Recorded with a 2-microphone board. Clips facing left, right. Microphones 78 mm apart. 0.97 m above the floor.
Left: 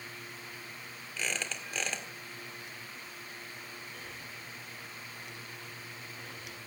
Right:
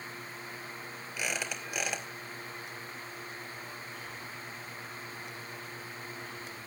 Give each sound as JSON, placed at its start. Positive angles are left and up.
{"t": 1.2, "sound": "a squeak", "side_deg": -15, "distance_m": 1.9}
{"t": 3.9, "sound": "breathing", "side_deg": 75, "distance_m": 5.5}